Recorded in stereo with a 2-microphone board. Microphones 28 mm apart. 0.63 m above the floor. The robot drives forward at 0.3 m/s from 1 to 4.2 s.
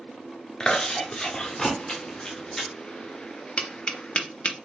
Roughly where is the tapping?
Left.